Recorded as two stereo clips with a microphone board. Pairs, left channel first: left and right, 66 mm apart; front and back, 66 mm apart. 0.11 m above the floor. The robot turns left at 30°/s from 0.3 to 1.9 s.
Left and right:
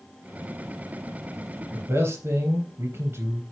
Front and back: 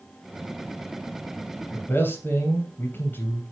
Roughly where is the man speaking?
Ahead right.